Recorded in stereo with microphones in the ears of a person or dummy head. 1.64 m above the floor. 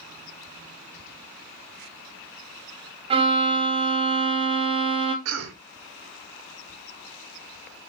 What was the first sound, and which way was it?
A violin, 30° right (ahead or behind).